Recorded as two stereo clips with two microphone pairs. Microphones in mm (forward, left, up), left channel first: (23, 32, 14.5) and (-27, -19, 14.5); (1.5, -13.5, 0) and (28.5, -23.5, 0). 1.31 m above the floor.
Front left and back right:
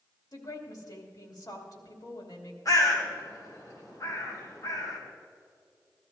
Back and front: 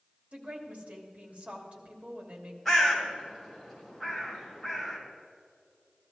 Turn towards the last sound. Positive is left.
turn(degrees=80)